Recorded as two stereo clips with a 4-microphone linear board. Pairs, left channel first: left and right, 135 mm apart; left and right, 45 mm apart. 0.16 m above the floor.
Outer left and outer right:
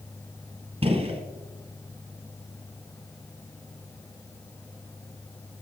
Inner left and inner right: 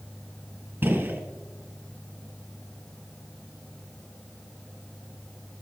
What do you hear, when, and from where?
0.8 s a gunshot: 40° right (ahead or behind), 1.3 m